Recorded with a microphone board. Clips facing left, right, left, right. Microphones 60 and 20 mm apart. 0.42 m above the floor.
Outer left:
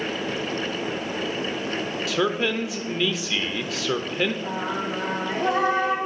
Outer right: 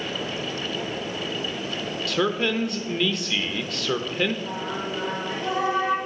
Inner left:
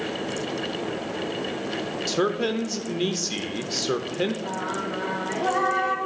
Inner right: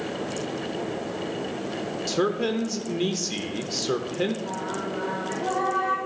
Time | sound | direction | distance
2.1 | a man speaking | 5° left (ahead or behind) | 0.8 m
4.4 | singing | 60° left (ahead or behind) | 2 m